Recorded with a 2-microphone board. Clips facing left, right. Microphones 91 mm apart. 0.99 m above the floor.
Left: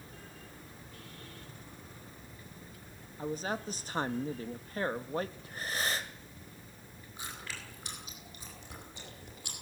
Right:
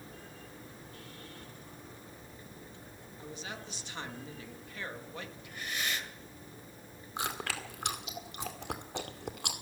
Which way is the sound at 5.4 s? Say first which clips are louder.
Left 2 dB; 35° left (ahead or behind).